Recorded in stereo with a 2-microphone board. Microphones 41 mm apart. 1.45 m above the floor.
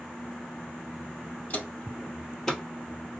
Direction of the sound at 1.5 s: 35° left (ahead or behind).